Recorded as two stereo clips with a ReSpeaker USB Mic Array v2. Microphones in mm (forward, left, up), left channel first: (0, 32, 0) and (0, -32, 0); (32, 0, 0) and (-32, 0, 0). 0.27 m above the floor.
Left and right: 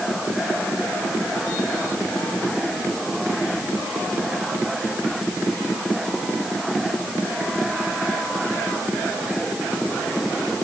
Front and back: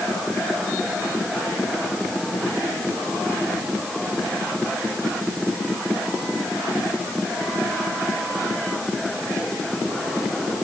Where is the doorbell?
I don't hear a doorbell.